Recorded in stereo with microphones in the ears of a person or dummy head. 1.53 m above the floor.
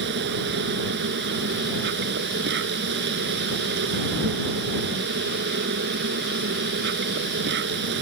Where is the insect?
65° right (ahead or behind).